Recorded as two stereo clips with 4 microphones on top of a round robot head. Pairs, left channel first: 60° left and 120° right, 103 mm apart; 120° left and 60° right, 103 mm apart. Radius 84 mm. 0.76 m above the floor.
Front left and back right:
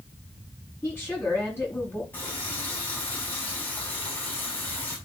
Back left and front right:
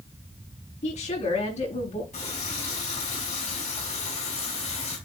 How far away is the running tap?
About 5 m.